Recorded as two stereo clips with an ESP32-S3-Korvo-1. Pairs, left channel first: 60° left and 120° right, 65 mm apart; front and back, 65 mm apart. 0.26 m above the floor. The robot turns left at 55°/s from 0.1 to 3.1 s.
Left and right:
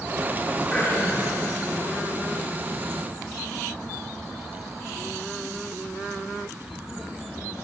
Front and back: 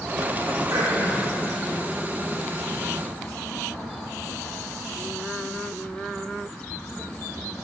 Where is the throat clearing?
140° left, 4 m; by 1.3 s 105° left, 4 m.